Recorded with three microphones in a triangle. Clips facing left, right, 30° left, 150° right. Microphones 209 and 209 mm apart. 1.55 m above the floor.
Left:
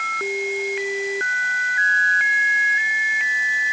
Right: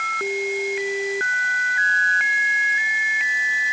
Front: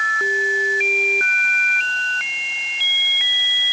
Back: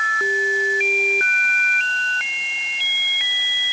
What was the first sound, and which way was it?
Only background noise.